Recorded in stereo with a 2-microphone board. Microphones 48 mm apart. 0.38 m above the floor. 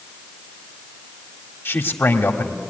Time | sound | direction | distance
1.6 | a man speaking | 55° left (ahead or behind) | 1.7 m